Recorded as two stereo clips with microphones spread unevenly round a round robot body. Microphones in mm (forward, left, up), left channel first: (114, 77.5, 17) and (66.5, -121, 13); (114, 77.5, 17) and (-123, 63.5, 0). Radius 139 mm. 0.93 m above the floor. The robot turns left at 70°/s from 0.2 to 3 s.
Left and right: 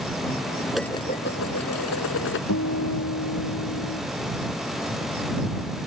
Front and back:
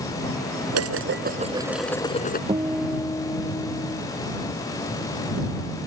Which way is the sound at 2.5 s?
115° left.